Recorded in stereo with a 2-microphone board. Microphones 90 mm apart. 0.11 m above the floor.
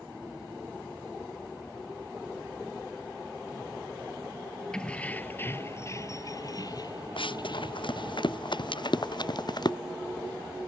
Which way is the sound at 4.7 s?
10° left (ahead or behind).